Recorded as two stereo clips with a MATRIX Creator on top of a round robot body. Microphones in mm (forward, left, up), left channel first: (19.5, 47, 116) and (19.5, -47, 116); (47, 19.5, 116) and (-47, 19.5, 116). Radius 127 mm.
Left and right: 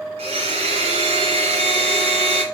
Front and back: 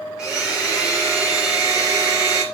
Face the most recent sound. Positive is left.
turn(degrees=-95)